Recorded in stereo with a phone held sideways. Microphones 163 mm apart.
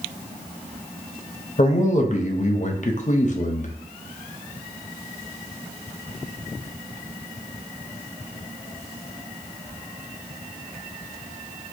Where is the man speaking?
50° left (ahead or behind), 0.6 m.